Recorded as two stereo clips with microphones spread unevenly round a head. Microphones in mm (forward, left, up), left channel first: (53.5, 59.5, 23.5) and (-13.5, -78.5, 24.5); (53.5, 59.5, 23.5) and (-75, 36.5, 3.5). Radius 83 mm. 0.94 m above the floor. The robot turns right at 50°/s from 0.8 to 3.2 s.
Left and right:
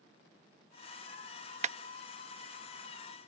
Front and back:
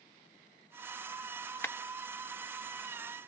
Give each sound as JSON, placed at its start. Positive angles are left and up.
{"t": 1.6, "sound": "a clap", "azimuth_deg": -70}